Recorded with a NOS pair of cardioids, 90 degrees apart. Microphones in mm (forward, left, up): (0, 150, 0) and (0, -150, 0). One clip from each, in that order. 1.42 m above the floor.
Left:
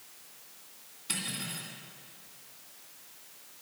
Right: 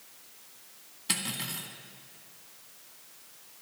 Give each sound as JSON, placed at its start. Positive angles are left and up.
{"t": 1.1, "sound": "cutlery clinking", "azimuth_deg": -50, "distance_m": 2.0}